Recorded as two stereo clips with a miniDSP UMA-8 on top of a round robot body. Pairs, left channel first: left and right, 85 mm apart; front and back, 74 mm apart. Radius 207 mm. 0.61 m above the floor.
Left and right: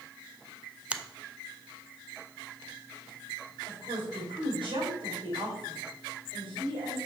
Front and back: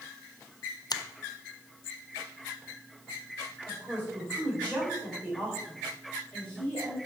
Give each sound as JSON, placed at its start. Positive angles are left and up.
{"t": 0.9, "sound": "a finger snap", "azimuth_deg": -15, "distance_m": 0.6}
{"t": 3.7, "sound": "a woman speaking", "azimuth_deg": -70, "distance_m": 4.0}